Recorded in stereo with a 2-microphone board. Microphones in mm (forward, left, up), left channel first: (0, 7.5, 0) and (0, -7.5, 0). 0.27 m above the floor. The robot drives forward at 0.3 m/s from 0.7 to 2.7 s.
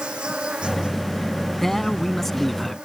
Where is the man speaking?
20° left (ahead or behind); by 2.8 s 15° left (ahead or behind).